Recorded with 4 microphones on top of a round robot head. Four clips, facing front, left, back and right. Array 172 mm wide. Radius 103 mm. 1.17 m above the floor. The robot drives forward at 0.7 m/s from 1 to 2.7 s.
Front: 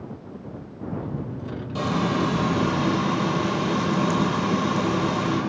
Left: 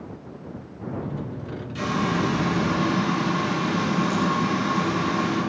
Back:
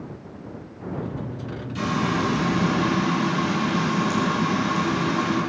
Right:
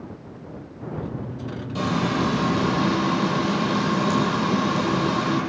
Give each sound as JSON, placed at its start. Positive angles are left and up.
{"t": 1.8, "sound": "frying", "azimuth_deg": -40, "distance_m": 3.5}